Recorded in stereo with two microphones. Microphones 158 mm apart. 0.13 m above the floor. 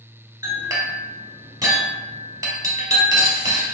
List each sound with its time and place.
0.4 s a clink: 25° right (ahead or behind), 1.4 m